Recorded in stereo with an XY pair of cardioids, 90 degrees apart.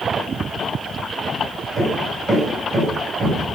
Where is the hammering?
45° right, 9 m.